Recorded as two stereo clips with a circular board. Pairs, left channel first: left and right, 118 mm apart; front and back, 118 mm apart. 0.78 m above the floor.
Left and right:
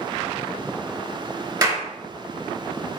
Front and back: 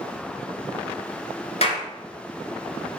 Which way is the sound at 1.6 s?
35° right.